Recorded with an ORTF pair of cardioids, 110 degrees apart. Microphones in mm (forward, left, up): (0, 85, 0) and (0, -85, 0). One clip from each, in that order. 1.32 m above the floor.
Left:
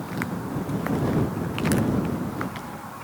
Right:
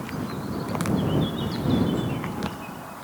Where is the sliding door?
I don't hear a sliding door.